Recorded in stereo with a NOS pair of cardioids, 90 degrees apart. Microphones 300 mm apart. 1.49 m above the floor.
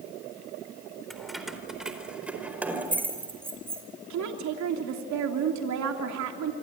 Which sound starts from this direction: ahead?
Keys jangling, at 1.1 s.